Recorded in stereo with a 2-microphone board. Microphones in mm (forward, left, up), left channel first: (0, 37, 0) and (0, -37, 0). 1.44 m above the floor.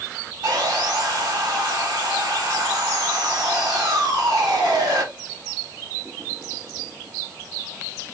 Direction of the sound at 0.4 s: 75° right (ahead or behind).